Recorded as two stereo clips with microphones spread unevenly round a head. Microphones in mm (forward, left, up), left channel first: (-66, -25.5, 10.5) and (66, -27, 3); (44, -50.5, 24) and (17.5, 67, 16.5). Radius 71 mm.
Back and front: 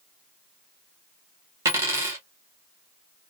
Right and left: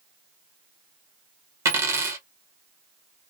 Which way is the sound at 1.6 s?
55° left.